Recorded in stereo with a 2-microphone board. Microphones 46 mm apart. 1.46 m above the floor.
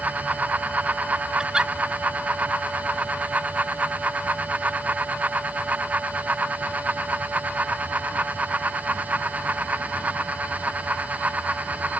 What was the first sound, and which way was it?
A giggle, 20° right (ahead or behind).